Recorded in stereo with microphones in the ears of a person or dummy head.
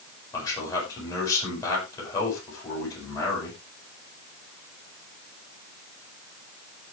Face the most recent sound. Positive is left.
turn(degrees=20)  # may be behind; listen again after turning